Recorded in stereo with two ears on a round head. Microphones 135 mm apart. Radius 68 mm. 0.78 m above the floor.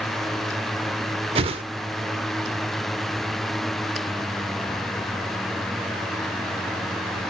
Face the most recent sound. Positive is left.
turn(degrees=-40)  # may be behind; listen again after turning